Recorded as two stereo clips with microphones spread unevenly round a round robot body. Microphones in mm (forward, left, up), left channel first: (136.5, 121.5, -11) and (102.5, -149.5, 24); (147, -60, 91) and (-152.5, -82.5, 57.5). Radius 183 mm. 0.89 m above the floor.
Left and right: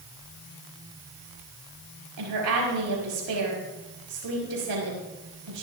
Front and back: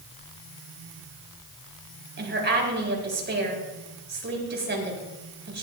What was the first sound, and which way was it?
A woman speaking, 125° right.